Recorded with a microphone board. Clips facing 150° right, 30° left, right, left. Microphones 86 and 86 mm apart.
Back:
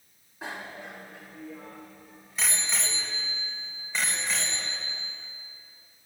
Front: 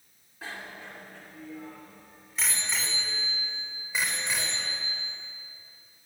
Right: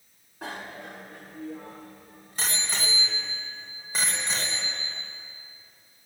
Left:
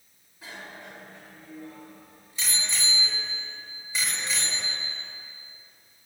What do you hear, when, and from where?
0.4 s a bicycle bell: 80° right, 3 m; by 5.0 s 45° right, 4.5 m